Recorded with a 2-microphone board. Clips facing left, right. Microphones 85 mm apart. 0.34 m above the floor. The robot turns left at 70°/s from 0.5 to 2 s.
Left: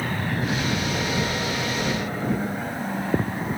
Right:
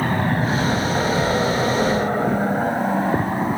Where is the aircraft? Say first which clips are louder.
Right 6 dB; 45° right (ahead or behind); by 3.6 s 35° right (ahead or behind).